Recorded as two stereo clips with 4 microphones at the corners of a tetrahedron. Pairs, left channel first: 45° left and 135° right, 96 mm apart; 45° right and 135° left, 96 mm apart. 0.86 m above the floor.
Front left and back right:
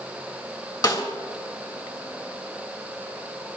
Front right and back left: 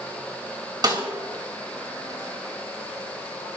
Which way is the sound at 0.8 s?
90° left.